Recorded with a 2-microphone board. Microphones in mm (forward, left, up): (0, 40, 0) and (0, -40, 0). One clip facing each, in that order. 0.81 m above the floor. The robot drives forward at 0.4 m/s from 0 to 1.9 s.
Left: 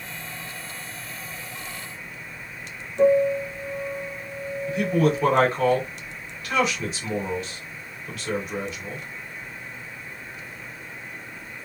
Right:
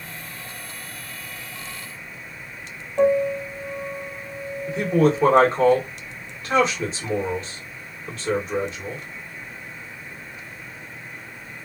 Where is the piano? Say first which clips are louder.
Left 1 dB; 70° right (ahead or behind), 1.7 m.